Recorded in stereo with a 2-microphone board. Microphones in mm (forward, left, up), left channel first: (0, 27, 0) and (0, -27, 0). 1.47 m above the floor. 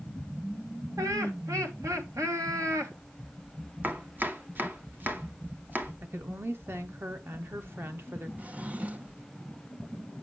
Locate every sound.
1.0 s laughter: 80° right, 1.4 m
3.8 s chopping: 35° right (ahead or behind), 0.8 m
6.0 s a woman speaking: 45° right (ahead or behind), 0.8 m
8.4 s a drawer: 25° right (ahead or behind), 0.6 m